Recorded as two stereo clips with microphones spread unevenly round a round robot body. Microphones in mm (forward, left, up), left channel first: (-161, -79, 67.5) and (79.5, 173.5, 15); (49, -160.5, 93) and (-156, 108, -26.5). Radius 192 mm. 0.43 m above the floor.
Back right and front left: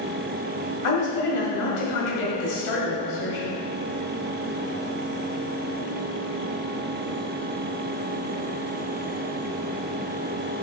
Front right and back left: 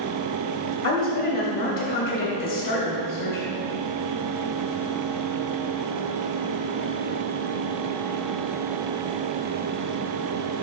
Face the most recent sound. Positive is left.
turn(degrees=-90)